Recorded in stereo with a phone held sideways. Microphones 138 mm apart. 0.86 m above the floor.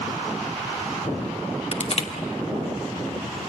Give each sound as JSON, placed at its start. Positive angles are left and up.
{"t": 1.7, "sound": "crushing", "side_deg": 50, "distance_m": 1.7}